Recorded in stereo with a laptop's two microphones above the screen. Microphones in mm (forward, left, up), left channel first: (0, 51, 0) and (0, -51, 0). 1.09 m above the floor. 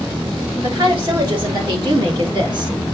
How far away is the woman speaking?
About 3 m.